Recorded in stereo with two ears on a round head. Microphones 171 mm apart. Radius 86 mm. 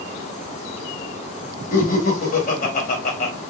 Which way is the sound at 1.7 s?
45° left (ahead or behind).